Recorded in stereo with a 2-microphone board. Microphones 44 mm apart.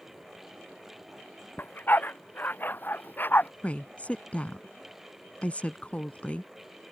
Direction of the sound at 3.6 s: 35° left (ahead or behind).